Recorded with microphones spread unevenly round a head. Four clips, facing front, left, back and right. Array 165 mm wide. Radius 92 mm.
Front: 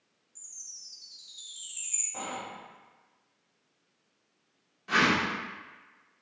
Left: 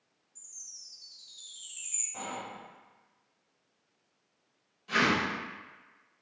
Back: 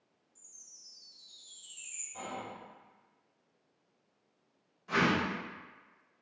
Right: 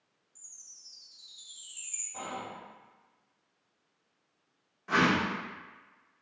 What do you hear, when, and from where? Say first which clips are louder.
0.3 s a chime: left 1 dB, even; 30° left, 1.4 m
2.1 s whispering: even, front 4 dB; 5° left, 0.7 m
4.9 s a whoosh: right 2 dB, front 3 dB; 45° right, 0.8 m